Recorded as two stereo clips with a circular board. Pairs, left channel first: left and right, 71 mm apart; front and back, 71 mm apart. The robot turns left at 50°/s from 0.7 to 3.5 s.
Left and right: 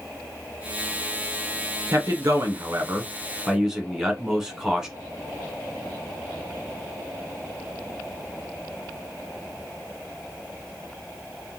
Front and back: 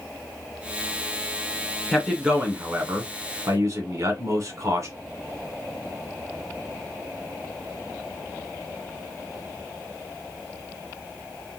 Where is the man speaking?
90° right, 1.4 m; by 4.9 s 170° right, 1.4 m.